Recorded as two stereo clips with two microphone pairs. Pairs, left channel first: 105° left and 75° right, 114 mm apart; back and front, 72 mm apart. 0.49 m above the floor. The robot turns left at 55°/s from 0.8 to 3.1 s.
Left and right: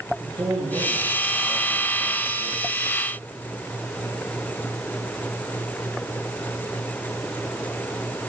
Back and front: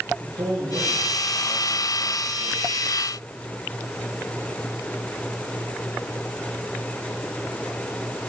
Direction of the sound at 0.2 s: 15° right.